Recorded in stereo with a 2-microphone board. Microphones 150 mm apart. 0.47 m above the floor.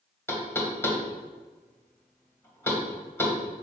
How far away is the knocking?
About 1.9 m.